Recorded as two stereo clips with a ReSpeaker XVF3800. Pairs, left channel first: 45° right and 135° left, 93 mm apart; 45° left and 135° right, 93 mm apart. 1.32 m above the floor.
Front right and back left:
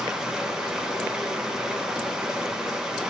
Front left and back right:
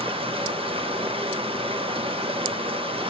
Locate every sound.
0.0 s running water: 140° right, 0.9 m